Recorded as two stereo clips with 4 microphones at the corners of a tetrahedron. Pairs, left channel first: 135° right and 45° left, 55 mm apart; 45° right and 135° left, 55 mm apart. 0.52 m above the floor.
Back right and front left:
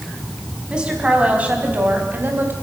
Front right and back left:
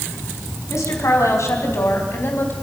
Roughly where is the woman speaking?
Ahead right.